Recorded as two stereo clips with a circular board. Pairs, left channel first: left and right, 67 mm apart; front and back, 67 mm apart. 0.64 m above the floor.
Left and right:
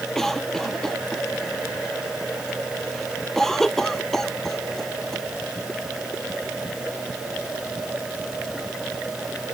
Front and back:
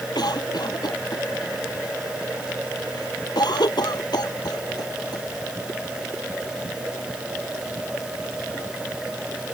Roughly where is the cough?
Ahead.